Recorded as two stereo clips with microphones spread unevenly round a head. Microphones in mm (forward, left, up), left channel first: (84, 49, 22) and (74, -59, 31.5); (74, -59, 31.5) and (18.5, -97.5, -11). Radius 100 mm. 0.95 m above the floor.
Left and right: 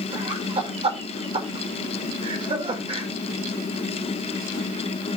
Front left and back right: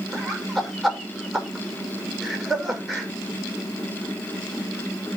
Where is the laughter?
60° right, 4.5 m.